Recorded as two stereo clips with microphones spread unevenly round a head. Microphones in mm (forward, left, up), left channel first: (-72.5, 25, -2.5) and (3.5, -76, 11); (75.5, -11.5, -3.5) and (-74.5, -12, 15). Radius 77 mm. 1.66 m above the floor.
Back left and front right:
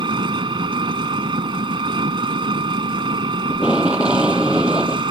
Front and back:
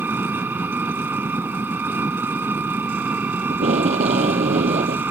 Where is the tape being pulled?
135° right.